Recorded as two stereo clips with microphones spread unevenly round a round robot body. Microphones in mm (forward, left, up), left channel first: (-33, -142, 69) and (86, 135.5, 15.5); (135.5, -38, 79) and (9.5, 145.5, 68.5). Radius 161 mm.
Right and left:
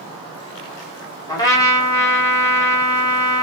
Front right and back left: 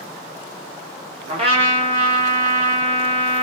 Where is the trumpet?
160° left, 1.6 m.